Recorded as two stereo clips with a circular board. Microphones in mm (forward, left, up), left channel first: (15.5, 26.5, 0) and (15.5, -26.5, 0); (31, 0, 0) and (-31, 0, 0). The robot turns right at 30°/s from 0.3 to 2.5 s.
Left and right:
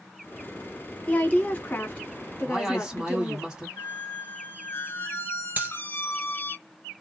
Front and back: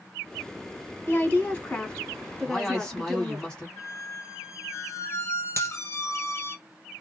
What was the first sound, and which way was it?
A woman speaking, 40° left.